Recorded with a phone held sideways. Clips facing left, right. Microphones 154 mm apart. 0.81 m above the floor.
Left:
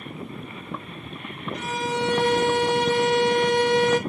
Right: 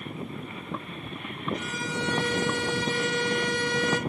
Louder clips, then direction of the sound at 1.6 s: Left 6 dB; 60° left (ahead or behind).